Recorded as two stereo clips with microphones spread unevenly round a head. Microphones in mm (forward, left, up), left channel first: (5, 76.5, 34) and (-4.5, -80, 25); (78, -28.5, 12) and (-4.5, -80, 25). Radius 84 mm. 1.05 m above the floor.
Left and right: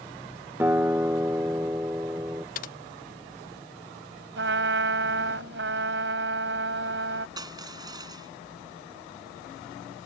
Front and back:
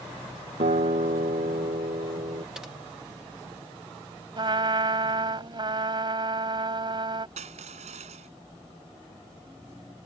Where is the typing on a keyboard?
125° left.